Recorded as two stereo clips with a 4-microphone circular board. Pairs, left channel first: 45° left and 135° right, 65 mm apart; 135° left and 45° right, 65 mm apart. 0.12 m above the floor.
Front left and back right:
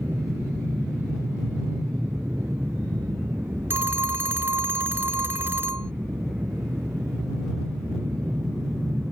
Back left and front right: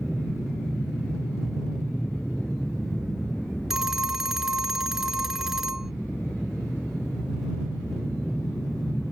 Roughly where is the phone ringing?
Behind right.